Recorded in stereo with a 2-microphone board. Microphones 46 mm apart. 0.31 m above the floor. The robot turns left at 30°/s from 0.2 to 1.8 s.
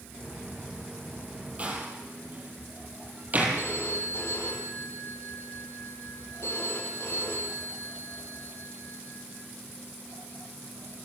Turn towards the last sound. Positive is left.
turn(degrees=70)  # may be behind; listen again after turning